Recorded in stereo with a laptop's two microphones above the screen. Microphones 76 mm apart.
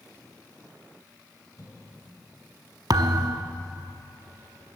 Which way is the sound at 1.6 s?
50° left (ahead or behind).